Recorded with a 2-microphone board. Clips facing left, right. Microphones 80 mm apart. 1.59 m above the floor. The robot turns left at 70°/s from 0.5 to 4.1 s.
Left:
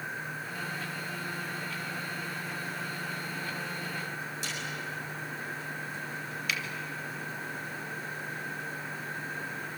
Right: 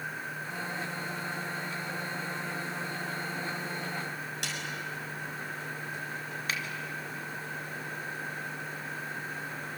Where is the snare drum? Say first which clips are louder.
Even; 75° right (ahead or behind), 6.5 m.